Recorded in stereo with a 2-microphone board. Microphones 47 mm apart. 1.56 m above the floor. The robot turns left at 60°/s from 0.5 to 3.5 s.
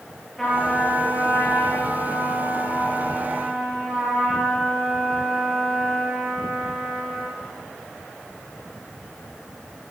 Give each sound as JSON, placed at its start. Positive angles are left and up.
{"t": 0.4, "sound": "a trumpet", "azimuth_deg": 175, "distance_m": 9.5}